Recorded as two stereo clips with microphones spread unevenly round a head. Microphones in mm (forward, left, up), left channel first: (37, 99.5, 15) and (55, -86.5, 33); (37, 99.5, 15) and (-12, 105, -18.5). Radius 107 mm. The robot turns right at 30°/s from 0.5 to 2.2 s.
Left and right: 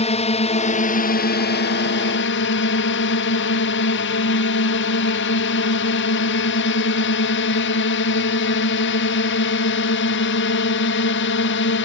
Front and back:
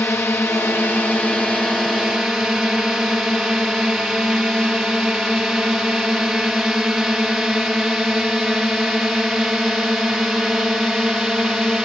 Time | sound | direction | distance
0.0 | a drone | 45° left | ?